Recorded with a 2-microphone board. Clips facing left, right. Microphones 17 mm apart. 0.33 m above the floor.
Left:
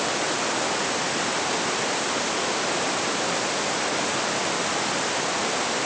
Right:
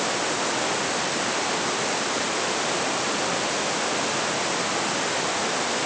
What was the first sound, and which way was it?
Only background noise.